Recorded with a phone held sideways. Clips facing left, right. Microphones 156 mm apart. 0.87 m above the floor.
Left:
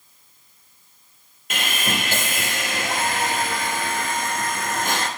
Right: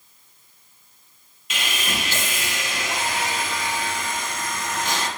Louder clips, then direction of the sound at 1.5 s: Left 3 dB; 55° left (ahead or behind).